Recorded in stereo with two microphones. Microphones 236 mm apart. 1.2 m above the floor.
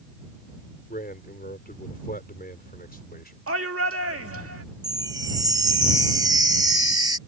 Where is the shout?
75° right (ahead or behind).